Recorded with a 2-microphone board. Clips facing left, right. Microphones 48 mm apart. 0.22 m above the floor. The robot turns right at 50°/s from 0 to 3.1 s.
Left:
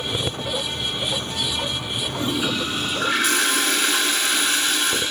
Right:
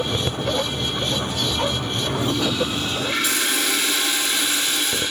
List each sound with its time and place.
2.2 s a toilet flushing: 25° left, 3 m; by 5.0 s 75° left, 3 m